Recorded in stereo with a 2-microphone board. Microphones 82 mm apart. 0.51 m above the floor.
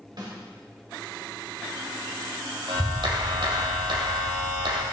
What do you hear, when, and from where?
0.2 s a snare drum: 55° right (ahead or behind), 2.5 m
2.7 s a clap: 70° right (ahead or behind), 1.7 m